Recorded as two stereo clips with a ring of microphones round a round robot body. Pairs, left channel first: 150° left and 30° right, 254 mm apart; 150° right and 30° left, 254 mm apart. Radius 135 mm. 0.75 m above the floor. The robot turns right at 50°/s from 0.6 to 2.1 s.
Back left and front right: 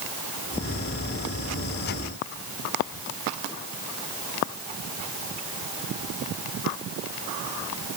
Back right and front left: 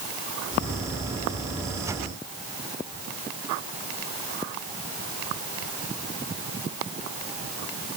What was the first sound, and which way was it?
Only background noise.